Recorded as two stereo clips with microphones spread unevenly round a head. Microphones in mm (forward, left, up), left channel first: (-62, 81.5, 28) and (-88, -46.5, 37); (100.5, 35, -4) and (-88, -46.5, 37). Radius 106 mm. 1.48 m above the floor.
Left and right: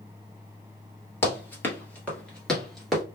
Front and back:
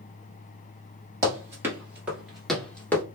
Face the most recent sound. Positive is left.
turn(degrees=-95)